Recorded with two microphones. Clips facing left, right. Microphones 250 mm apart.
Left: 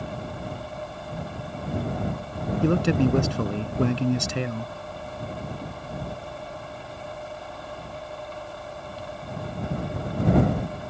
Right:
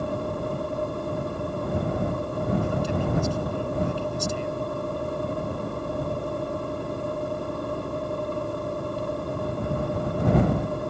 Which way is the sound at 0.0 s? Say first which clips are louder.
Right 6 dB; 50° right (ahead or behind).